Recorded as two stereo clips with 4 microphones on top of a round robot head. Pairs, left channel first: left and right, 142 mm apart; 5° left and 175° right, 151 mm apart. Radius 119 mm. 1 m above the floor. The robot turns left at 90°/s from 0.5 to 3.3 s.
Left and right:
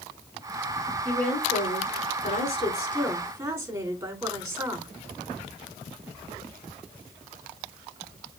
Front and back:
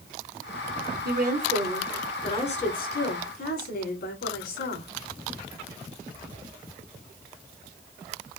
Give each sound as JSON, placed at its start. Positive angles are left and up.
{"t": 1.1, "sound": "a woman speaking", "azimuth_deg": -175, "distance_m": 4.5}